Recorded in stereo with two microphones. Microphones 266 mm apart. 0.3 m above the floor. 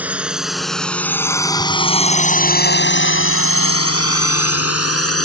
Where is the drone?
5° right (ahead or behind); by 5.3 s 60° left (ahead or behind).